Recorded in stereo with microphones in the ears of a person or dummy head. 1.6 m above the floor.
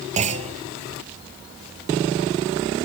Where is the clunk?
30° right (ahead or behind), 0.5 m.